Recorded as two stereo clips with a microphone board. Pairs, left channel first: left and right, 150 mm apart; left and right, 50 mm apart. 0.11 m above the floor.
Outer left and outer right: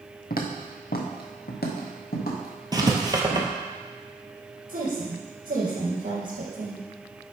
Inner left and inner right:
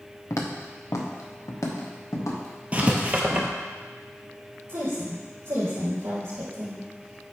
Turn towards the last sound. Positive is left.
turn(degrees=-60)  # may be behind; listen again after turning